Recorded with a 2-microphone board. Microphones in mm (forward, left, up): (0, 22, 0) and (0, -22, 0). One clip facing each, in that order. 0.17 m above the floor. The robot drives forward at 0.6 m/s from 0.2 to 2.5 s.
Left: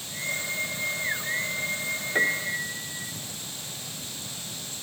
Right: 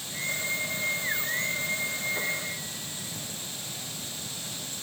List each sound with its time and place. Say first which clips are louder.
2.1 s a piano: left 7 dB; 65° left (ahead or behind), 2 m